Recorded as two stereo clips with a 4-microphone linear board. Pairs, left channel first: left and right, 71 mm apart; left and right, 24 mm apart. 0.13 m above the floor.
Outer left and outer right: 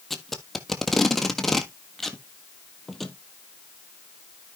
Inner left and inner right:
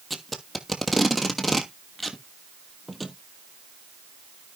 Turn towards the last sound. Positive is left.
turn(degrees=0)  # may be behind; listen again after turning